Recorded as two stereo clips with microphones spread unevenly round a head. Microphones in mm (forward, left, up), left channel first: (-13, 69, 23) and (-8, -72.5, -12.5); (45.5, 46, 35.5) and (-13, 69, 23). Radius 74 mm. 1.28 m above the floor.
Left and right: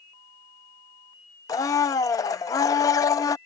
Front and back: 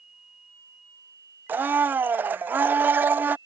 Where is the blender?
105° left.